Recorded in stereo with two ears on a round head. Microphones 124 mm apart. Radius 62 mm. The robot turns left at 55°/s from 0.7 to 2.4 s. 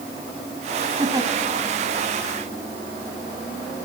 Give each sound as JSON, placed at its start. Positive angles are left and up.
{"t": 1.0, "sound": "a giggle", "side_deg": -35, "distance_m": 1.8}